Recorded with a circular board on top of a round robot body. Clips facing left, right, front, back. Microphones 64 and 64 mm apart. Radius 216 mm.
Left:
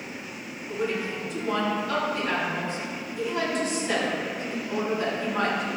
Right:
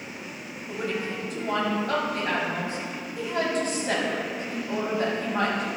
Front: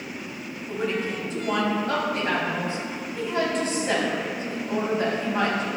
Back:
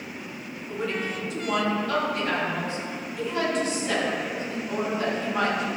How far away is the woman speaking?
About 4 m.